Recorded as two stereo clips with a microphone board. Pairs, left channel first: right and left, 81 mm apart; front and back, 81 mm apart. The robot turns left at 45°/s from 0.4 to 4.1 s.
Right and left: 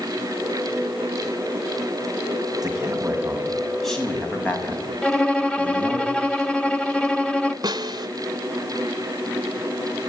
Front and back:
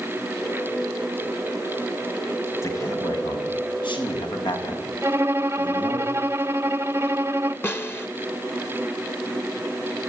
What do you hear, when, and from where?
2.6 s a man speaking: 50° left, 5.5 m; by 6.0 s 15° right, 5.5 m
5.0 s a violin: 160° right, 0.8 m
7.6 s a snare drum: 60° left, 1.1 m